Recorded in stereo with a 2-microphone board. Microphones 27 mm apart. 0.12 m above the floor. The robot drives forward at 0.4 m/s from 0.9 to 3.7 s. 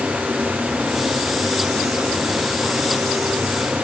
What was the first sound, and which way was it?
Only background noise.